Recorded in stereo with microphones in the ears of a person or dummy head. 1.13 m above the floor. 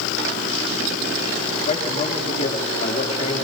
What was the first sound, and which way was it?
A man speaking, 45° left (ahead or behind).